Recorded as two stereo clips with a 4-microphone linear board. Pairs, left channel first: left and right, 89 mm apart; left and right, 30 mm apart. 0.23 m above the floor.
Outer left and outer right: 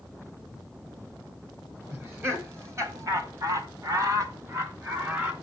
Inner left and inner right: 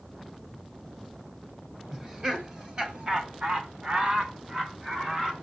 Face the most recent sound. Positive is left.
turn(degrees=-30)  # may be behind; listen again after turning